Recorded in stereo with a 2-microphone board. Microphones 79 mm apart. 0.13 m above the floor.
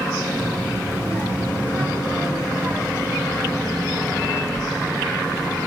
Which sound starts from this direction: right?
A child speaking, at 0.4 s.